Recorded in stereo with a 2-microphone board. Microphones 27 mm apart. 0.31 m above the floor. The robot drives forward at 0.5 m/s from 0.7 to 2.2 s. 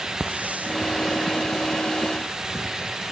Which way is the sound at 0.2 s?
70° right (ahead or behind).